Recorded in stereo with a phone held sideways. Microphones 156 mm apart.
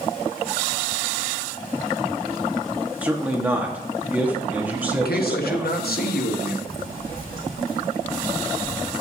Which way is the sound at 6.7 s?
70° right (ahead or behind).